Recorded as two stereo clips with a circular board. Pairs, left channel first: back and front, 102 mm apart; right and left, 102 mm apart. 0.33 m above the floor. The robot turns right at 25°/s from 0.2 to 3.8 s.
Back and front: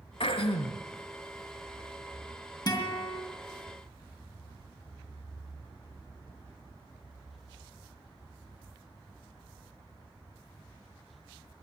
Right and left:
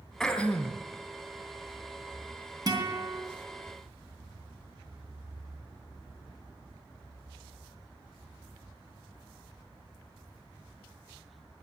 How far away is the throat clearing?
About 1.3 m.